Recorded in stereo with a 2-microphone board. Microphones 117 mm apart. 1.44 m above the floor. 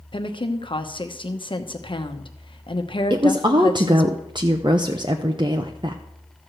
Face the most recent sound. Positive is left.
turn(degrees=-40)  # may be behind; listen again after turning